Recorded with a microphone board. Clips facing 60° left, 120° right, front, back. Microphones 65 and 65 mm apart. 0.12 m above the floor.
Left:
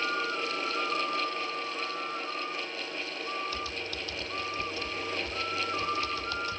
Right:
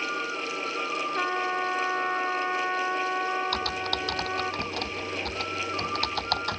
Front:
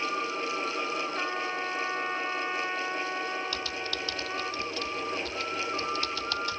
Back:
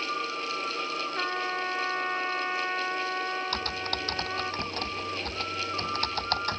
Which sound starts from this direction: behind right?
Typing on a keyboard, at 3.5 s.